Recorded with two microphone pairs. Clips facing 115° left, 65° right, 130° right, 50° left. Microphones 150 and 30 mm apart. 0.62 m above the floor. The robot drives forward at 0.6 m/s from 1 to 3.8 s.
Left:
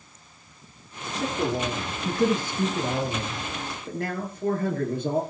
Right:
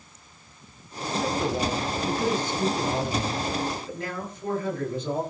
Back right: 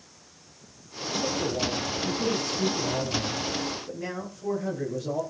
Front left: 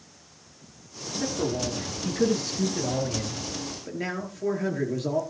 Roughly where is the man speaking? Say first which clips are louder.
Right 1 dB, even; left.